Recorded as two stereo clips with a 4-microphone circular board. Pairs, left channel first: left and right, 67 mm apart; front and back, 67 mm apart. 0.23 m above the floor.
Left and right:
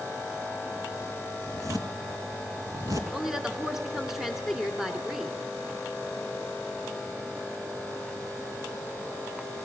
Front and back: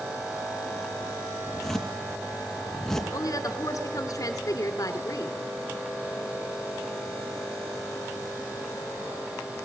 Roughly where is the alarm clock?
No alarm clock in this recording.